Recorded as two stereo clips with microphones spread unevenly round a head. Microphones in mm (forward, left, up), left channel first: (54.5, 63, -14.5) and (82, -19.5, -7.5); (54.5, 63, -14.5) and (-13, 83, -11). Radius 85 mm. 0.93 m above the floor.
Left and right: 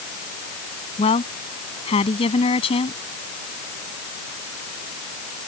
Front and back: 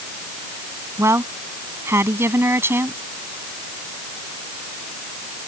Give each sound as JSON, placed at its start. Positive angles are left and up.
{"t": 1.0, "sound": "a woman speaking", "azimuth_deg": 115}